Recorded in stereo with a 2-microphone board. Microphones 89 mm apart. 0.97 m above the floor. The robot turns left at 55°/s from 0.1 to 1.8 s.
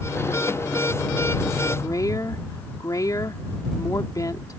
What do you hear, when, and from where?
1.8 s a woman speaking: 45° left (ahead or behind); by 4.6 s 40° left (ahead or behind)